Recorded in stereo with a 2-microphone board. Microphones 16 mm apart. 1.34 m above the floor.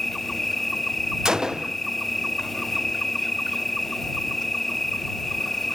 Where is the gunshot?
50° right (ahead or behind).